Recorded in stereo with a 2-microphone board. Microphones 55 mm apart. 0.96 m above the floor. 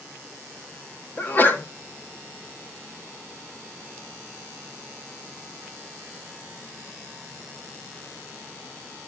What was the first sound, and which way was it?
A sneeze, 35° left (ahead or behind).